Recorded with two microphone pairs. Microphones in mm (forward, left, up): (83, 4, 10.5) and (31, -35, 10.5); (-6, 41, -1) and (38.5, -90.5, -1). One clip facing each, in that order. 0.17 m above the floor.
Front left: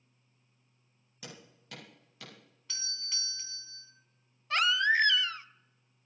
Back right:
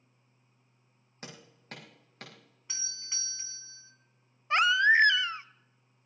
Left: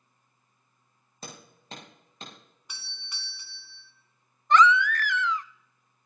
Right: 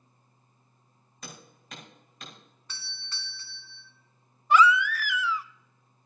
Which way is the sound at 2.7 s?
170° left.